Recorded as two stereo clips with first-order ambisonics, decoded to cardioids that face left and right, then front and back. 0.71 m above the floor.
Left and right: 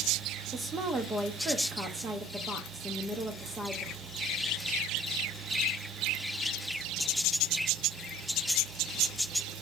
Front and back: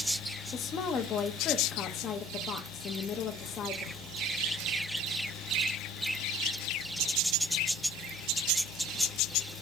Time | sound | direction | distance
0.5 | a woman speaking | 30° right | 0.9 m